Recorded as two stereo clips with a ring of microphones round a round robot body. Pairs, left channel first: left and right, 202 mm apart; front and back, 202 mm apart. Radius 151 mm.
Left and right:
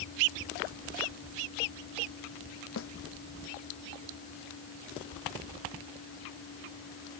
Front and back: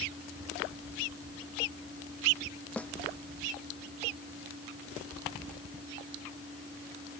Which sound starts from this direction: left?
A snare drum, at 2.8 s.